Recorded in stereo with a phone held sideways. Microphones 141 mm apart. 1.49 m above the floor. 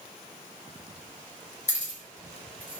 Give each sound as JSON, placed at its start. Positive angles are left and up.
{"t": 1.7, "sound": "keys jangling", "side_deg": 55, "distance_m": 1.4}